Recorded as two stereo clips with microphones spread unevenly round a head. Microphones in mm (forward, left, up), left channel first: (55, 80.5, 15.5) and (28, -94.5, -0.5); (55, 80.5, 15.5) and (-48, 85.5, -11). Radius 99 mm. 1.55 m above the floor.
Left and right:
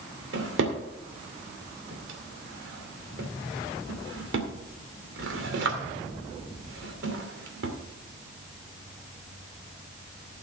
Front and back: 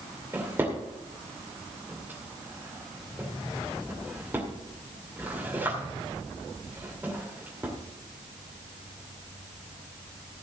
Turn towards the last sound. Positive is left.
turn(degrees=-100)